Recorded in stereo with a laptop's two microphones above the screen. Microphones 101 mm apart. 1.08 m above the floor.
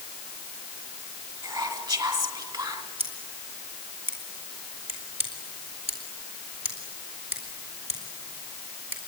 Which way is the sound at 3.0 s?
75° right (ahead or behind).